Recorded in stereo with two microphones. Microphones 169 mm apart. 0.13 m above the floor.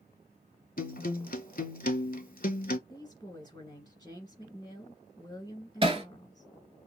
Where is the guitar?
60° left (ahead or behind), 0.6 m.